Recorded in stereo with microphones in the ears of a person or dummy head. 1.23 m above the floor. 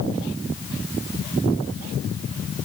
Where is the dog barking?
No dog barking in this recording.